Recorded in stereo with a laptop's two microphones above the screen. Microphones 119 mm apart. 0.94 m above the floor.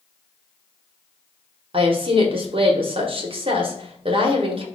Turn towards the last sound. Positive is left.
turn(degrees=-50)  # may be behind; listen again after turning